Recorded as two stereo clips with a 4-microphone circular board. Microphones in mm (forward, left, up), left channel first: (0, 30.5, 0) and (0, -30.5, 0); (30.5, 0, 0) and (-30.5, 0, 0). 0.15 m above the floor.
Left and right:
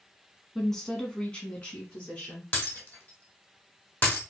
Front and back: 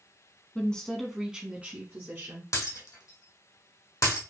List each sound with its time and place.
0.6 s a woman speaking: 15° left, 1.1 m; by 2.4 s 150° left, 1.6 m
2.5 s breaking glass: 25° left, 1.8 m